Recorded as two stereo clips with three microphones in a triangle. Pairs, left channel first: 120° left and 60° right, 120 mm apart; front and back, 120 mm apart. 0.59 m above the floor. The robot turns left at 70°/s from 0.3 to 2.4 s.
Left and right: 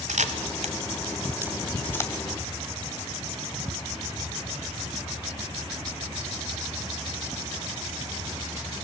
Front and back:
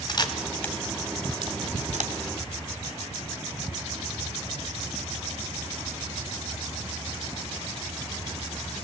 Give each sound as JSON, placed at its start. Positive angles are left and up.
{"t": 0.1, "sound": "a camera shutter", "azimuth_deg": -55, "distance_m": 1.7}